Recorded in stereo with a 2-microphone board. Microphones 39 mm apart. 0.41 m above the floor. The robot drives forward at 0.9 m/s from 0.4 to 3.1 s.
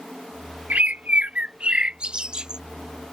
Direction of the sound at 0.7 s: 45° right (ahead or behind).